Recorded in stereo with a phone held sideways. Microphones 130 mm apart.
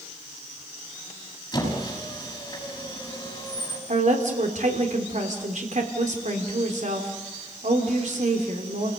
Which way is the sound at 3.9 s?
70° right (ahead or behind).